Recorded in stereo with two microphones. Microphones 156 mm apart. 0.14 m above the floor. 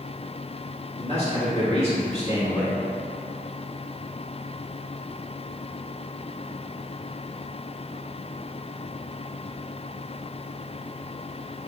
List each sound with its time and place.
1.0 s a man speaking: 50° left (ahead or behind), 1.5 m